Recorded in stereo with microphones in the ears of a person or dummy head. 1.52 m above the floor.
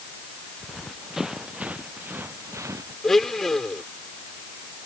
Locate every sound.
0.6 s running footsteps: 5° left (ahead or behind); by 2.9 s 15° right (ahead or behind)
3.0 s a blender: 5° left (ahead or behind)